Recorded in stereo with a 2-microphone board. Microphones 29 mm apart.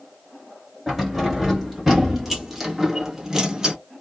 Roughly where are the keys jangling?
Centre.